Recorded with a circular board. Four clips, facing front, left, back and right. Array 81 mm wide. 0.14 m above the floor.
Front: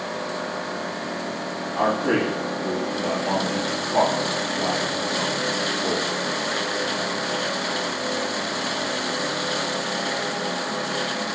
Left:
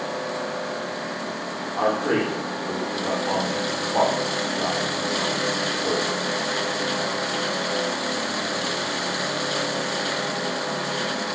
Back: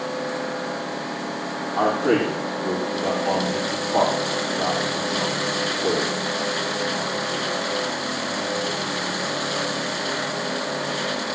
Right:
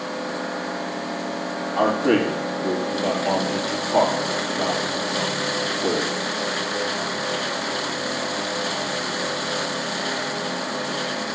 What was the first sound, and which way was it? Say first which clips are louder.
A man speaking: right 3 dB, back 2 dB; 90° right.